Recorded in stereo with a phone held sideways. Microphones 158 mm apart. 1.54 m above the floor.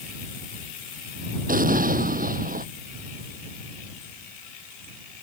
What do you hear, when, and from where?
1.5 s an explosion: 65° right (ahead or behind)